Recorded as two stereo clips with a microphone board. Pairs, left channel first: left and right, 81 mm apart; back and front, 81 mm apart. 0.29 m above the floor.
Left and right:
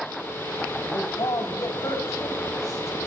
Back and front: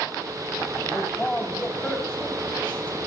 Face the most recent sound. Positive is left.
turn(degrees=105)